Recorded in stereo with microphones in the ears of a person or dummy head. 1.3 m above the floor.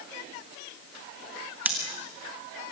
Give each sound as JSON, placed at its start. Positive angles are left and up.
{"t": 1.6, "sound": "scissors", "side_deg": -5, "distance_m": 1.7}